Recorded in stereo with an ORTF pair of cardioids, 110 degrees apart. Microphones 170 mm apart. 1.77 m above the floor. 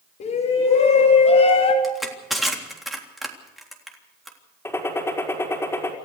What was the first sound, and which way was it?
A shout, 60° left.